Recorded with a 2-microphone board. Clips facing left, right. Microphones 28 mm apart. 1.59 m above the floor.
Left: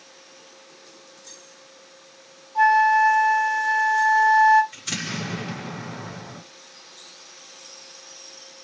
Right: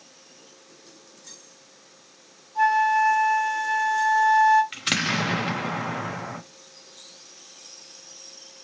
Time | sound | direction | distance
2.5 | a flute | 25° left (ahead or behind) | 1.3 m
4.7 | an explosion | 75° right (ahead or behind) | 0.7 m